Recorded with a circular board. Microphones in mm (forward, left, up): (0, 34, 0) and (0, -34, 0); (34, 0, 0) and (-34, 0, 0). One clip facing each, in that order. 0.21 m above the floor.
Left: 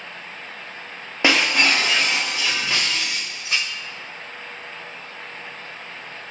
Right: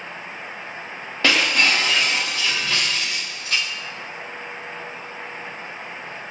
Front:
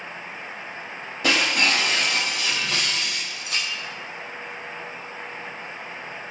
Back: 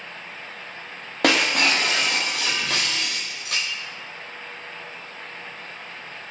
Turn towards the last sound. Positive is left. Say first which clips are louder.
# left 1 dB, back 2 dB
turn(degrees=160)